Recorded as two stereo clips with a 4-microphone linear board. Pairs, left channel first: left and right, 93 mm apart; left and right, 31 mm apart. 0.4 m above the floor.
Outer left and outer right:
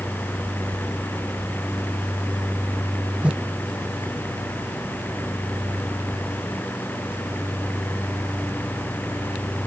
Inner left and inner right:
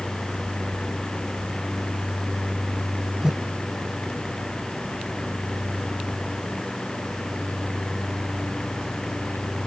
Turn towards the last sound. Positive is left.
turn(degrees=-10)  # may be behind; listen again after turning